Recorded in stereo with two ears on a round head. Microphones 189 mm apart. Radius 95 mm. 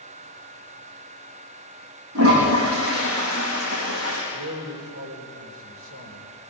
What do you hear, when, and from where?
2.1 s a toilet flushing: 70° right (ahead or behind), 7.5 m
4.3 s a man speaking: 70° right (ahead or behind), 3.5 m